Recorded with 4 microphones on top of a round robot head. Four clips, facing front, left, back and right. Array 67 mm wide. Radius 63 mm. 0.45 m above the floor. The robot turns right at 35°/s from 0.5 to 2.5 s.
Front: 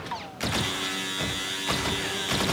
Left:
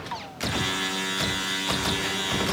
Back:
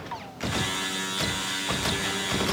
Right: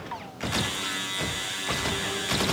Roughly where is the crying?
I don't hear crying.